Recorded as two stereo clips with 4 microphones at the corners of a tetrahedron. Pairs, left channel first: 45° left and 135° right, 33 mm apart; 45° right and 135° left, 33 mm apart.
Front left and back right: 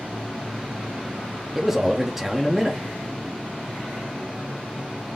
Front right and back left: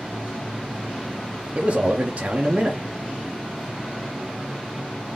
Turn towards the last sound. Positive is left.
turn(degrees=145)